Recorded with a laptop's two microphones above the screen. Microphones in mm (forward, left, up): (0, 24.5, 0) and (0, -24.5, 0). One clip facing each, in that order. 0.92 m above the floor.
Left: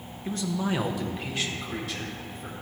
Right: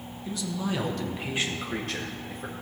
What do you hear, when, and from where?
0.2 s a man speaking: 45° left (ahead or behind), 0.9 m; by 2.5 s 65° right (ahead or behind), 1.2 m